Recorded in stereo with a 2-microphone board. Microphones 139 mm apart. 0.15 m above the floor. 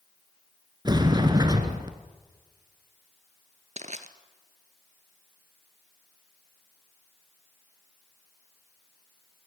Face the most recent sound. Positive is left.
turn(degrees=-60)  # may be behind; listen again after turning